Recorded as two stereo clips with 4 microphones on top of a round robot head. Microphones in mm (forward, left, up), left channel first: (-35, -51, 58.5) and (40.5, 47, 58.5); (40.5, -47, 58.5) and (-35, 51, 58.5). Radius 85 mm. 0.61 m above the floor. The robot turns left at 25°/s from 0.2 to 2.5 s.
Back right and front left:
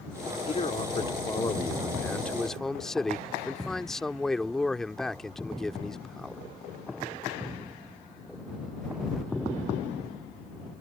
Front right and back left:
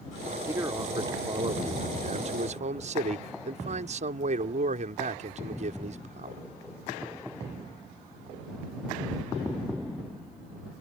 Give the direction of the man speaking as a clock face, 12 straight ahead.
5 o'clock.